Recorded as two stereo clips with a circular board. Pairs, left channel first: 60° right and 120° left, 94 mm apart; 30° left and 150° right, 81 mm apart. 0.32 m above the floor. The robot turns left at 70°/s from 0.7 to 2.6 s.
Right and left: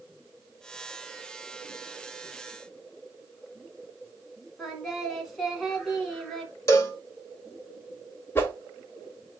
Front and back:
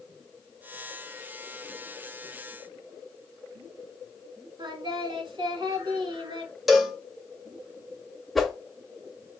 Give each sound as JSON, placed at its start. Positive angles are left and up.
{"t": 4.6, "sound": "singing", "azimuth_deg": -150, "distance_m": 1.0}
{"t": 6.7, "sound": "a cowbell", "azimuth_deg": -60, "distance_m": 0.7}
{"t": 8.3, "sound": "a whoosh", "azimuth_deg": -55, "distance_m": 0.7}